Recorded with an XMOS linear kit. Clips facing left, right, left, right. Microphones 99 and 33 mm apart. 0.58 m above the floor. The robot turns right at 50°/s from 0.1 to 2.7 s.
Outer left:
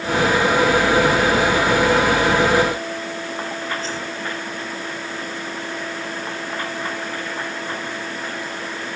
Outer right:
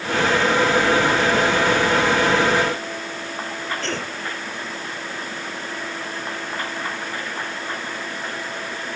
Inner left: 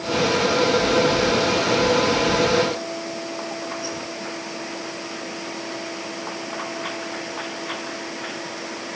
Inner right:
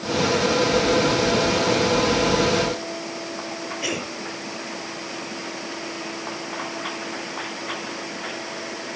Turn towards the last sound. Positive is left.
turn(degrees=-70)  # may be behind; listen again after turning